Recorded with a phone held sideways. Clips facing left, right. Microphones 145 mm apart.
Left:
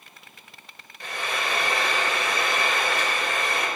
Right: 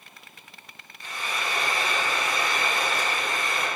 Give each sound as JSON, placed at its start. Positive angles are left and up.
{"t": 1.0, "sound": "frying", "side_deg": 80, "distance_m": 4.5}